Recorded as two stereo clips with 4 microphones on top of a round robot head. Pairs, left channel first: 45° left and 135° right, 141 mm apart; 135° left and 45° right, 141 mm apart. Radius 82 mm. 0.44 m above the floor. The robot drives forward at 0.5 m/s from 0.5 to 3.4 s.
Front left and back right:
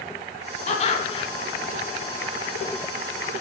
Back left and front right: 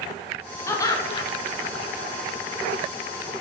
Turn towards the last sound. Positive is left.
turn(degrees=140)